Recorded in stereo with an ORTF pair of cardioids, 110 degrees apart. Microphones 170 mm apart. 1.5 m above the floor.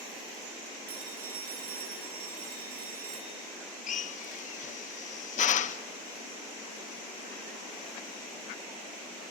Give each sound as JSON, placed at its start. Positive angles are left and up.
{"t": 0.9, "sound": "a phone ringing", "azimuth_deg": -65, "distance_m": 6.5}
{"t": 3.9, "sound": "a drill", "azimuth_deg": 50, "distance_m": 1.4}